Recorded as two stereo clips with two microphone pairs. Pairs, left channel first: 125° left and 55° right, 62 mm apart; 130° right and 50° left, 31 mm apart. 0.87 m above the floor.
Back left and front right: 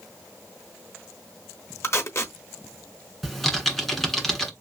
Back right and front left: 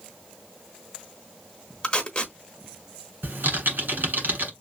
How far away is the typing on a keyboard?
About 1.4 m.